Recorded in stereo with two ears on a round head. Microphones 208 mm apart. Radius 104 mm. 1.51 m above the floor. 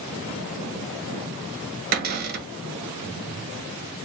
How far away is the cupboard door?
About 0.7 m.